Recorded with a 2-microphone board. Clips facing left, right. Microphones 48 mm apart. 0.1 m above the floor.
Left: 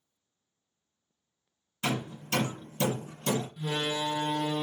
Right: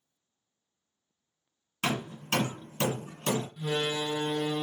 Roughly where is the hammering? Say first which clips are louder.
Right 1 dB; right.